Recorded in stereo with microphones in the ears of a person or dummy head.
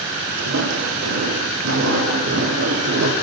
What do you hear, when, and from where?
0.4 s footsteps: 60° right (ahead or behind), 4 m; by 3.1 s 50° right (ahead or behind), 3 m